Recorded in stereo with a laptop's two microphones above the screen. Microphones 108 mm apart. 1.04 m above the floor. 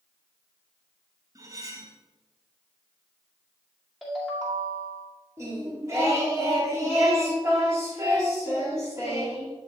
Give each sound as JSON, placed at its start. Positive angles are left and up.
{"t": 1.4, "sound": "cutlery clinking", "side_deg": -35, "distance_m": 0.7}
{"t": 4.0, "sound": "a ringtone", "side_deg": -5, "distance_m": 2.0}
{"t": 5.4, "sound": "singing", "side_deg": -30, "distance_m": 1.8}